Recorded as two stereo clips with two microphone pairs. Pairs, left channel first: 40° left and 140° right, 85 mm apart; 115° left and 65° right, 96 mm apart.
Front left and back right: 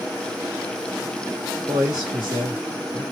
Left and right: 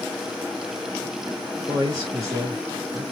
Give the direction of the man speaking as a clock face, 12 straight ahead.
3 o'clock.